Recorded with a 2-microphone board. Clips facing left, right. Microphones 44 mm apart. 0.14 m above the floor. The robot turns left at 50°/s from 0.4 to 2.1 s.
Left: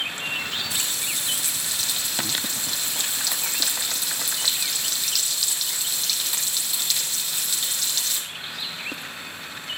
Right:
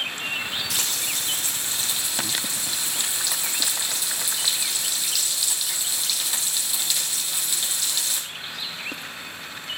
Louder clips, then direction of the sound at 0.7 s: Right 1 dB; 105° right.